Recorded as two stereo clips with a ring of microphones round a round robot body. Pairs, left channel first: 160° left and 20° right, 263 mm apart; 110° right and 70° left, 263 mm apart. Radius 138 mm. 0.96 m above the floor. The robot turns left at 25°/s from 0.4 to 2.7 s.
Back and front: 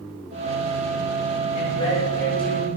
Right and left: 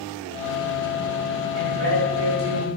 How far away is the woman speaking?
About 5 m.